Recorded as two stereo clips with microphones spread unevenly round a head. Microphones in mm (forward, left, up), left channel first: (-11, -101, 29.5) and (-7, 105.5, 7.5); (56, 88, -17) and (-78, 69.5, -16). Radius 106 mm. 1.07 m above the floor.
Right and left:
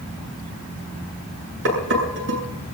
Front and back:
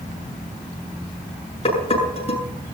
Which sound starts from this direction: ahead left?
Dishes clattering, at 1.6 s.